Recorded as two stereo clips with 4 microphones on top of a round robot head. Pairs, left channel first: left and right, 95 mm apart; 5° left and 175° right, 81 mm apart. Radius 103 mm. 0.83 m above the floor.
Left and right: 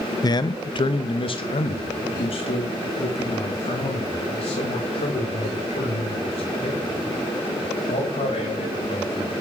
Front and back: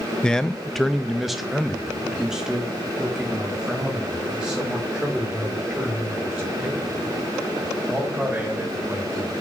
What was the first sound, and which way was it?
A man speaking, 80° left.